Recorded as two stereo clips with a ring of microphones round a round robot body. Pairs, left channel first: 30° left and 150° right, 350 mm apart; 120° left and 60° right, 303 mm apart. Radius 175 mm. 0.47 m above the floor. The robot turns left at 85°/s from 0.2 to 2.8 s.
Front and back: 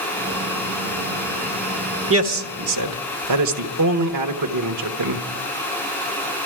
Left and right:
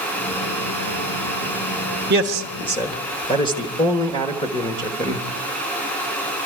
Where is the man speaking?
110° right, 1.1 m; by 5.3 s 170° right, 1.1 m.